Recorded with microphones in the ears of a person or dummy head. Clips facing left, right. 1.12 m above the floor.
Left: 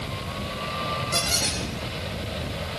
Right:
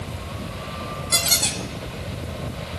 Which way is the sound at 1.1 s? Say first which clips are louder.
Even; 55° right (ahead or behind).